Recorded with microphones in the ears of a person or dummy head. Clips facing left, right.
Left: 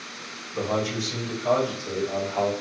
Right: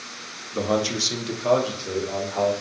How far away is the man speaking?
About 0.6 m.